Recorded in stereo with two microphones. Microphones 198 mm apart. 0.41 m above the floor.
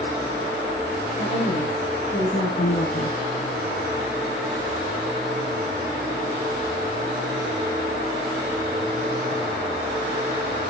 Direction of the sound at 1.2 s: 40° left (ahead or behind).